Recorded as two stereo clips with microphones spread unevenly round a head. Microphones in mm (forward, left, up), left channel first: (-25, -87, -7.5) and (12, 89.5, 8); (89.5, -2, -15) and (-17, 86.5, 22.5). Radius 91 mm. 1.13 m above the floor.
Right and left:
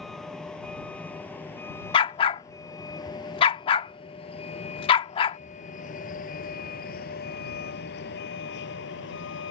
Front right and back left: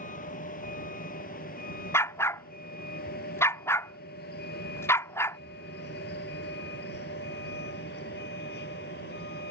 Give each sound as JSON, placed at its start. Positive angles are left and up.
{"t": 0.0, "sound": "a vehicle", "azimuth_deg": -15}
{"t": 1.9, "sound": "a dog barking", "azimuth_deg": -130}